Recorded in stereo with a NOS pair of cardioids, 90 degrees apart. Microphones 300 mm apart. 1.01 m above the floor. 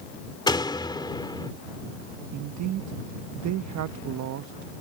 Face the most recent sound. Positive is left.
turn(degrees=-70)